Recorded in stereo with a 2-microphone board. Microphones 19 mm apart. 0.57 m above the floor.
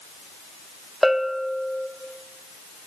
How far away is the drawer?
No drawer in this recording.